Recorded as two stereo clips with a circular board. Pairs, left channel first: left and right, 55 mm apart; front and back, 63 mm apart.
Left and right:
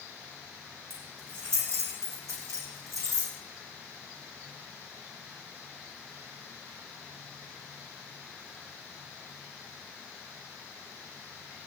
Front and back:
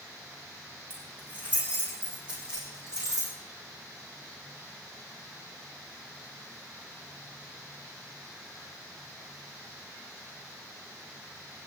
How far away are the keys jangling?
About 6.5 m.